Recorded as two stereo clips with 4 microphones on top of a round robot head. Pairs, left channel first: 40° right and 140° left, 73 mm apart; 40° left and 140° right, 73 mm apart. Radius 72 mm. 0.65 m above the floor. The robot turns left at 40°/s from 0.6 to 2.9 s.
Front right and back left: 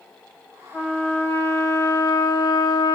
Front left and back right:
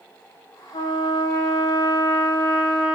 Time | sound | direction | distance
0.7 | a trumpet | 45° left | 5 m